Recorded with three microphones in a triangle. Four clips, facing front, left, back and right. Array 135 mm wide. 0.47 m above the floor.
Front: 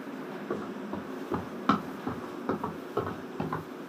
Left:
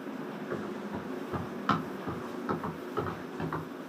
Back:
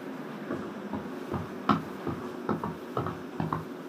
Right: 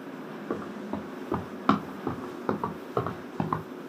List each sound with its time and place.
0.5 s running footsteps: 75° right, 4 m; by 3.6 s 105° right, 3 m